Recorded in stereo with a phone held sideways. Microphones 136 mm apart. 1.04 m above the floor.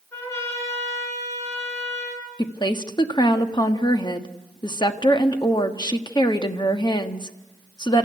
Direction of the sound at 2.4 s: 30° left (ahead or behind).